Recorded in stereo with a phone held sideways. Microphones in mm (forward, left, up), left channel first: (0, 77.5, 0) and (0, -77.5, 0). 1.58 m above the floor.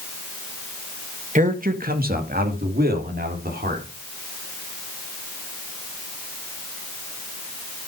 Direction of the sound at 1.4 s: 55° right (ahead or behind).